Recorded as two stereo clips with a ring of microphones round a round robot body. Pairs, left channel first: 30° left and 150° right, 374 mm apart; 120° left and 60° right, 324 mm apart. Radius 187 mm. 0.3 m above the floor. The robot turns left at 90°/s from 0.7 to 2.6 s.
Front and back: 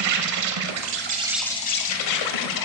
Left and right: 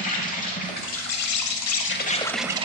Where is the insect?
Straight behind, 0.9 m; by 2.6 s 10° left, 0.9 m.